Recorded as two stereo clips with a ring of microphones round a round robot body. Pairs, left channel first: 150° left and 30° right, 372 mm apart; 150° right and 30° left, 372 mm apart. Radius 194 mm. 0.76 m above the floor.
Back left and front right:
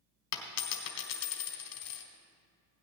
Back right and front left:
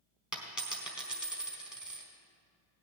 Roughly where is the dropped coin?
Behind left.